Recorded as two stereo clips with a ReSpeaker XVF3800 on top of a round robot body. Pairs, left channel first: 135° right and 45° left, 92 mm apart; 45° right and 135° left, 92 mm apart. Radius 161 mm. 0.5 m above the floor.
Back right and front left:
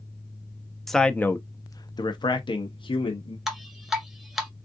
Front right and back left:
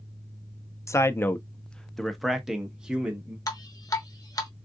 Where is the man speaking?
50° right, 0.7 m; by 3.4 s 150° right, 1.4 m.